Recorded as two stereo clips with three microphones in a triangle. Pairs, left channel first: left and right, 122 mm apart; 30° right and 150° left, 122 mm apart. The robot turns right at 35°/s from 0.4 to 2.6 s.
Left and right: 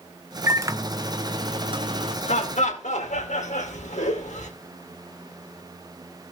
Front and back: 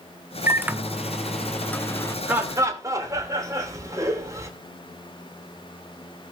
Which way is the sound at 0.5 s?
145° right.